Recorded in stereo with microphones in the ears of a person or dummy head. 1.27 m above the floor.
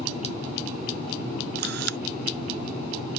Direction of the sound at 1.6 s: 70° right (ahead or behind).